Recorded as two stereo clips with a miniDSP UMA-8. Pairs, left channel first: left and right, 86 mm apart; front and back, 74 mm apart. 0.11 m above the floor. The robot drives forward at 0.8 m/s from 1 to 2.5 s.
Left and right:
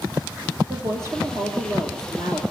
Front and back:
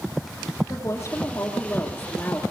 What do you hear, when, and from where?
0.7 s a woman speaking: 35° right, 3 m; by 2.4 s 60° right, 2.5 m